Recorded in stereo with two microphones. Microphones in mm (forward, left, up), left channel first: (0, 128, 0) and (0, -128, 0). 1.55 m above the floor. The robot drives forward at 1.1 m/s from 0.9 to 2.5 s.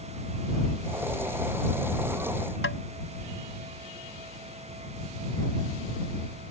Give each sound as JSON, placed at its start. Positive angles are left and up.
{"t": 2.6, "sound": "tapping", "side_deg": 55}